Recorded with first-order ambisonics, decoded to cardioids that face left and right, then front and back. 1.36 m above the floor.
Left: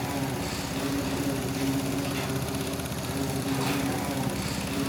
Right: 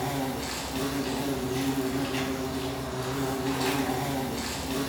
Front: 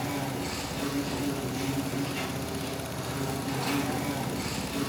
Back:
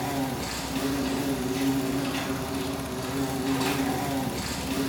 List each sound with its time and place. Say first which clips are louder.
0.0 s an insect: right 1 dB, back 3 dB; 135° right, 4 m